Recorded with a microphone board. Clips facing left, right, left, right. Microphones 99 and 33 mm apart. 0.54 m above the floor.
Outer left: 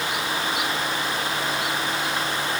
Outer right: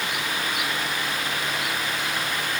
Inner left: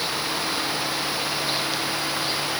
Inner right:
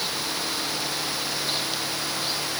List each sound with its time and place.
Only background noise.